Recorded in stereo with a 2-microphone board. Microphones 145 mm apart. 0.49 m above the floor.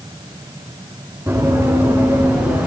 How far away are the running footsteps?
About 7.5 m.